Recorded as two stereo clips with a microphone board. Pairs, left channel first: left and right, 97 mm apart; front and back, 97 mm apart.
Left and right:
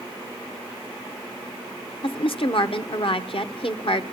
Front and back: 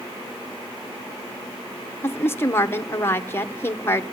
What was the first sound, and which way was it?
A woman speaking, 65° left.